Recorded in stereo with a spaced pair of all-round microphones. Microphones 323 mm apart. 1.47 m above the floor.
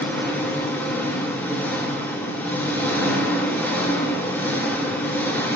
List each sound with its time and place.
0.0 s an engine running: 5° left (ahead or behind), 2.5 m